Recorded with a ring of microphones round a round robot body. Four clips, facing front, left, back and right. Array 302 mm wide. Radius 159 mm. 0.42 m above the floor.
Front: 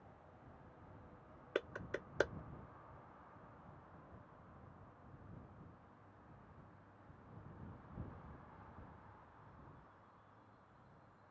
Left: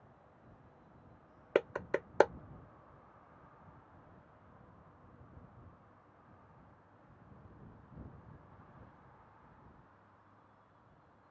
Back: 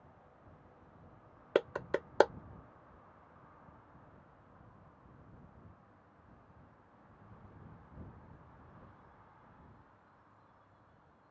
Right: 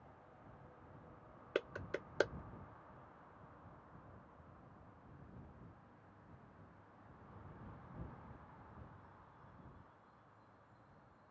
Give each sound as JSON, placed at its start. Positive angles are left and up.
{"t": 1.6, "sound": "a clap", "azimuth_deg": 135}